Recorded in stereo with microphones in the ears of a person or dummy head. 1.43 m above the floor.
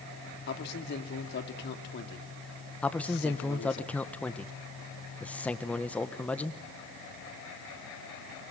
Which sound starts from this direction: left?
A man speaking, at 0.5 s.